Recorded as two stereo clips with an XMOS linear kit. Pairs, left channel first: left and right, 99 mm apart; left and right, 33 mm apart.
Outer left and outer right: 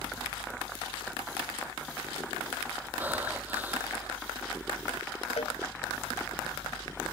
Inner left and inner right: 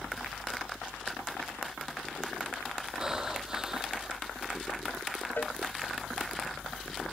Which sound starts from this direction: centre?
Breathing, at 3.0 s.